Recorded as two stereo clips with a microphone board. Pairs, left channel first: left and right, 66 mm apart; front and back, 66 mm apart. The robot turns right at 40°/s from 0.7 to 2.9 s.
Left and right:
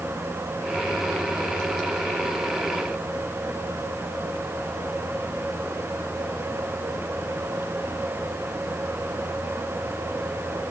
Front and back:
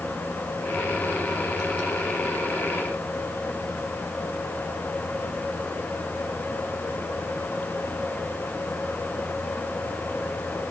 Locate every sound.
Only background noise.